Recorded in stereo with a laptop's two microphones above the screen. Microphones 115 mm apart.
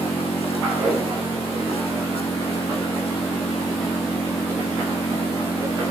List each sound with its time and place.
0.0 s an engine running: 60° left (ahead or behind)